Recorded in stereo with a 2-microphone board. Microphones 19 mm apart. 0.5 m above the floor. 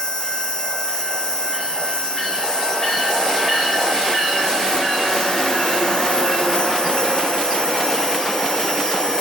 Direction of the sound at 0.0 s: 50° left (ahead or behind).